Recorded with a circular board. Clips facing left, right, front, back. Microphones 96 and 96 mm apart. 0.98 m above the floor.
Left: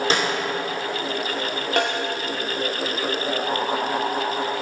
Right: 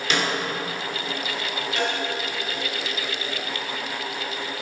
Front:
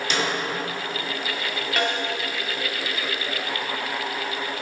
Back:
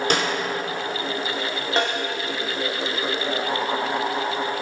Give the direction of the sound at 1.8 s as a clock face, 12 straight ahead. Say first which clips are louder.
Left 4 dB, back 2 dB; 8 o'clock.